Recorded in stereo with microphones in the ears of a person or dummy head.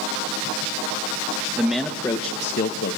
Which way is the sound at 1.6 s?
5° right (ahead or behind).